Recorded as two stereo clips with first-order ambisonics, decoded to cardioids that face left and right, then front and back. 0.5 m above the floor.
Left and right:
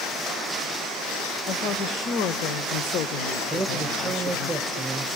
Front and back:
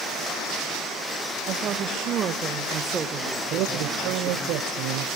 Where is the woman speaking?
130° left, 1.8 m; by 4.5 s 60° left, 0.8 m.